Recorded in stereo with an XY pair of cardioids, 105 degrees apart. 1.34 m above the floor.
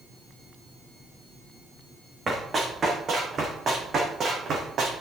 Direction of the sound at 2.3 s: 35° right.